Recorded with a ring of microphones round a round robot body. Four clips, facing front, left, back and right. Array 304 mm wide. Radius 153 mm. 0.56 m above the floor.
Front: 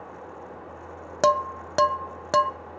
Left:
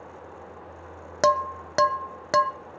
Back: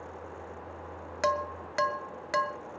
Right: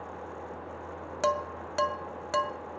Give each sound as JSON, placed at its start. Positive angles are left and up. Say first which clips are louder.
{"t": 1.2, "sound": "dishes clattering", "louder": "left 7 dB, front 8 dB", "azimuth_deg": 35, "distance_m": 0.6}